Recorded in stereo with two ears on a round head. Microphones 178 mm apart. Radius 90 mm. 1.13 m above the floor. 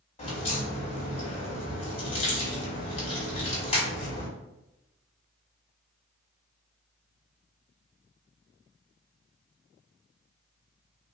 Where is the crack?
30° left (ahead or behind), 1.8 m.